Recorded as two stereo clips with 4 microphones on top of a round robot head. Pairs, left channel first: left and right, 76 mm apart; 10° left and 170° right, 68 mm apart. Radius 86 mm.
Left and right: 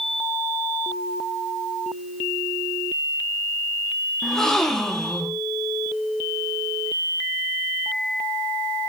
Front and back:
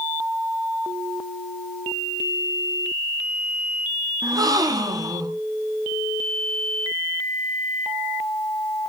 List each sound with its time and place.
4.2 s a gasp: 170° left, 1.4 m